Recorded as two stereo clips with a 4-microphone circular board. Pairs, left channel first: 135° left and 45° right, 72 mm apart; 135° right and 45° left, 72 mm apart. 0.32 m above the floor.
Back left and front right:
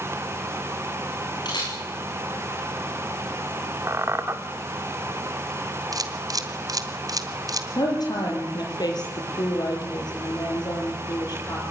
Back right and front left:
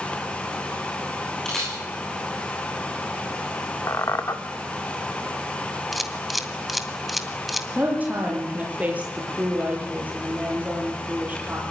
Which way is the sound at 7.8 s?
115° left.